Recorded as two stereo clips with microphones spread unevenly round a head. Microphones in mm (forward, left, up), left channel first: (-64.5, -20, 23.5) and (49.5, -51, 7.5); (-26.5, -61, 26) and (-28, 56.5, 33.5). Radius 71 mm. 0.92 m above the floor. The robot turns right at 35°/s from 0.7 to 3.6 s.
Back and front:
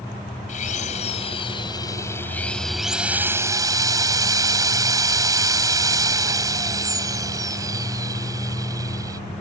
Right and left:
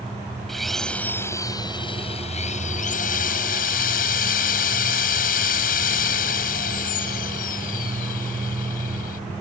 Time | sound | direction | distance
0.5 | a drill | straight behind | ?